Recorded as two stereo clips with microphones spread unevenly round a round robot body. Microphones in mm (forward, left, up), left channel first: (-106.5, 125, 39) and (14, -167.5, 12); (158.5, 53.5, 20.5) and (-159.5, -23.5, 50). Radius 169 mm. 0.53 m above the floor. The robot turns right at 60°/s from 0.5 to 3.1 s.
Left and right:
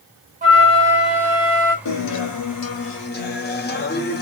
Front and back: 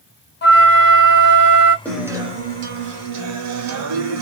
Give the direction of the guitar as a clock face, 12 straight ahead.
9 o'clock.